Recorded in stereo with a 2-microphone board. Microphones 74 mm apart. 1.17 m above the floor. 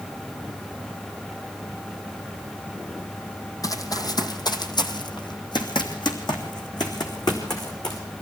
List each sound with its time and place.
3.6 s running footsteps: 45° left (ahead or behind), 2.5 m; by 8.0 s 55° left (ahead or behind), 4.5 m